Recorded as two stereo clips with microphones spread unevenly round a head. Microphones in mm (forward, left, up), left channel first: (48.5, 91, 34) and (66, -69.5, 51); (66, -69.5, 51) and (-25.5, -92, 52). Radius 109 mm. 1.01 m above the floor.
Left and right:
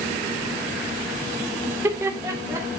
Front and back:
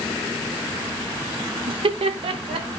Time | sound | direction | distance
1.7 | laughter | 165° right | 0.7 m